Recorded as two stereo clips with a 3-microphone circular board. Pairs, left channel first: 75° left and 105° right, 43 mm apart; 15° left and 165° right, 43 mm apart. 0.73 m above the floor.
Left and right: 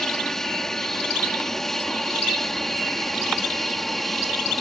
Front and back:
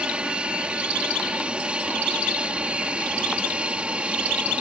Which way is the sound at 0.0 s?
145° left.